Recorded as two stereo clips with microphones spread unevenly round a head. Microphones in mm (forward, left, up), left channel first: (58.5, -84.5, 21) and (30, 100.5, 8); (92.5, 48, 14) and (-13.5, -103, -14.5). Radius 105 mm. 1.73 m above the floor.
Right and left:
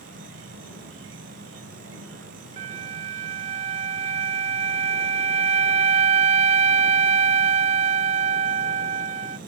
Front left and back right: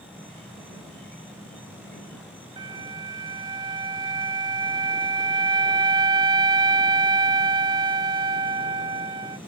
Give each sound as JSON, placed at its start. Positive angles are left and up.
{"t": 0.0, "sound": "an insect", "azimuth_deg": 140}
{"t": 2.6, "sound": "a flute", "azimuth_deg": 160}